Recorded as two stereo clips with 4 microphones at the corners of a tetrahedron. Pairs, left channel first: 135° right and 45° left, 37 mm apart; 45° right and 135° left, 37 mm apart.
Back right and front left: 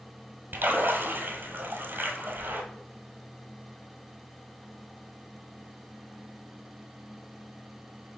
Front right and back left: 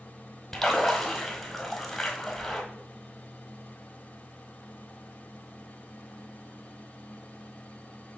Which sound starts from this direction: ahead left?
A splash, at 0.5 s.